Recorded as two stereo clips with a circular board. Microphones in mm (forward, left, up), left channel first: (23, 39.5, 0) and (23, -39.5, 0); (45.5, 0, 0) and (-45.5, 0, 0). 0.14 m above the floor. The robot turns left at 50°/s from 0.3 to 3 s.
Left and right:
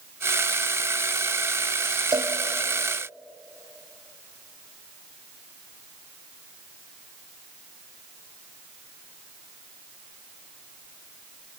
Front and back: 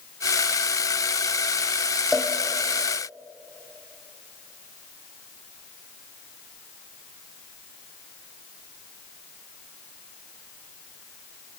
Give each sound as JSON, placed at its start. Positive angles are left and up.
{"t": 2.1, "sound": "a cowbell", "azimuth_deg": -95, "distance_m": 2.5}